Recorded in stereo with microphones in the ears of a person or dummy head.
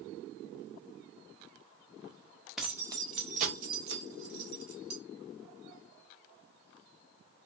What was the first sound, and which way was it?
Keys jangling, 5° left (ahead or behind).